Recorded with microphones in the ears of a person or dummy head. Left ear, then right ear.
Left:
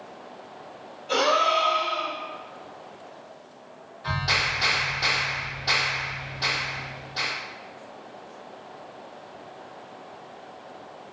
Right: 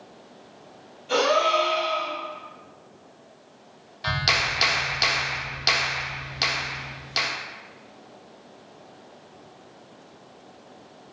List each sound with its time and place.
1.1 s a gasp: 10° left (ahead or behind), 1.3 m
4.0 s a clap: 75° right (ahead or behind), 0.6 m